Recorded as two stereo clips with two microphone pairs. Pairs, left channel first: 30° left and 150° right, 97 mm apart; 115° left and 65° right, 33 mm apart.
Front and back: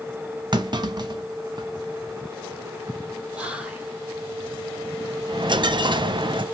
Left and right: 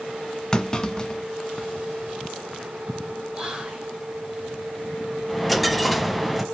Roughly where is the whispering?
Right.